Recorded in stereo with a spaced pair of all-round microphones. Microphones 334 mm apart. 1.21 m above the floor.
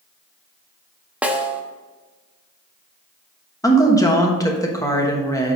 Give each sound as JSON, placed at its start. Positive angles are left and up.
{"t": 1.2, "sound": "a snare drum", "side_deg": -5, "distance_m": 0.8}
{"t": 3.6, "sound": "a woman speaking", "side_deg": 10, "distance_m": 1.3}